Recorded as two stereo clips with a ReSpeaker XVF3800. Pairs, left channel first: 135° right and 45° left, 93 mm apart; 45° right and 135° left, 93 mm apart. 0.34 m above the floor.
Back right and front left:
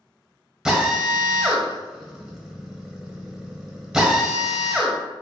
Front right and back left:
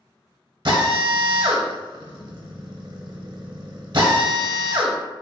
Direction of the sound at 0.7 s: 125° left.